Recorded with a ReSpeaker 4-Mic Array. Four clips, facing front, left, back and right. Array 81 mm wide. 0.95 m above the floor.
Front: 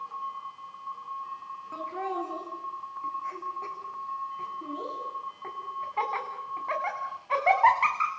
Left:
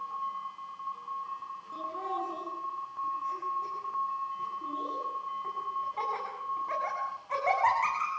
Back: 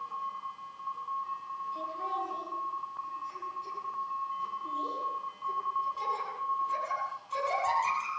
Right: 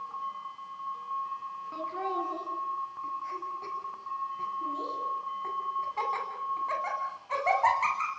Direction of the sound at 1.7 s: 25° right.